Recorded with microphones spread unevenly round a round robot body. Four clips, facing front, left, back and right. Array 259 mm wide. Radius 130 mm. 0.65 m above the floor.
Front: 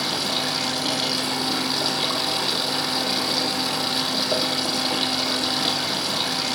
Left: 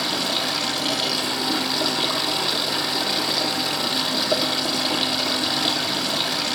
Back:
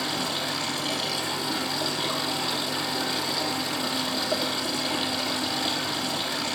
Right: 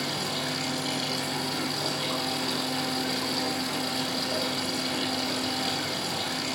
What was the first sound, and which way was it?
Running water, 80° left.